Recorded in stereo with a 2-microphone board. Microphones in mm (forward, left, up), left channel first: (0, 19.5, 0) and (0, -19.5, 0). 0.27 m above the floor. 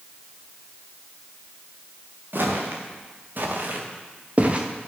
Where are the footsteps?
60° right (ahead or behind), 4.5 m; by 4.7 s 30° right (ahead or behind), 2.5 m.